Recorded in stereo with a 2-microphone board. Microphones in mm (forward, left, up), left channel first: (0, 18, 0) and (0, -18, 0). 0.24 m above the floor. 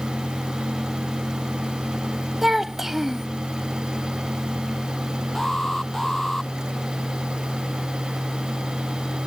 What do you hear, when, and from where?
2.4 s a child speaking: 10° right (ahead or behind)
5.3 s an alarm: 10° left (ahead or behind)